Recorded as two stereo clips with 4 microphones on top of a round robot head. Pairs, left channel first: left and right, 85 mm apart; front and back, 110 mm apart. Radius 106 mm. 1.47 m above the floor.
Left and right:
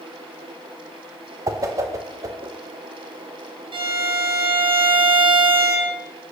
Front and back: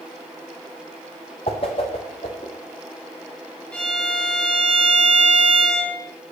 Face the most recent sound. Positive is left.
turn(degrees=-80)